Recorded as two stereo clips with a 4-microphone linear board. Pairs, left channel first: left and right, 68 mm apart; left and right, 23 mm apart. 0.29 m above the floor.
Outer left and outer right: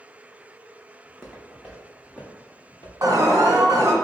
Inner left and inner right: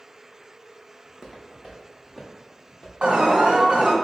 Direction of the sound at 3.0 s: 60° right (ahead or behind).